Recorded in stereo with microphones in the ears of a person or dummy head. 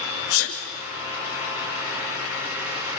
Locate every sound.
0.3 s a sneeze: 80° left, 2.5 m